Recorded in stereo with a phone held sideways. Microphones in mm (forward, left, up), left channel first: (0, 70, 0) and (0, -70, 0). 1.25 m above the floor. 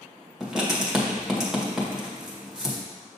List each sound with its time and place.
0.4 s writing: 5° right (ahead or behind), 1.4 m